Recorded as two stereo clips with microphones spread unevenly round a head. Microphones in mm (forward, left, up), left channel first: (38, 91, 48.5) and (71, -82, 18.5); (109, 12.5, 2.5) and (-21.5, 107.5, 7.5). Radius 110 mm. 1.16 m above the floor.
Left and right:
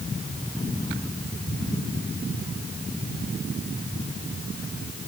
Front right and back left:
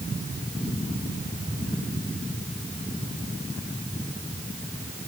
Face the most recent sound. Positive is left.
No sound to turn to.